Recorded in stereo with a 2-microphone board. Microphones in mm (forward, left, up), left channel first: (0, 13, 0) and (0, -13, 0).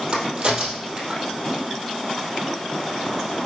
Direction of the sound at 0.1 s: 25° right (ahead or behind).